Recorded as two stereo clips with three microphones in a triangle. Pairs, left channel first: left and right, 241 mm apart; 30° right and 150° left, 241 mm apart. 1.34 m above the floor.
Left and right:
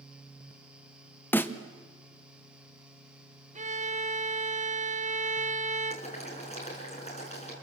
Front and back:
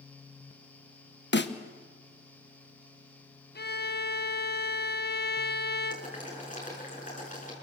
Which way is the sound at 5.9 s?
25° left.